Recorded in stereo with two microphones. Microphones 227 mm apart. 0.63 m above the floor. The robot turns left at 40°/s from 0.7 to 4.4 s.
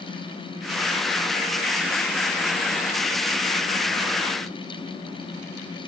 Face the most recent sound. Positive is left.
No sound to turn to.